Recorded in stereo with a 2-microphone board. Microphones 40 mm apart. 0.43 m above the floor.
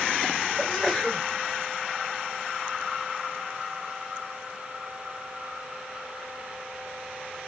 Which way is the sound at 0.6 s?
10° left (ahead or behind).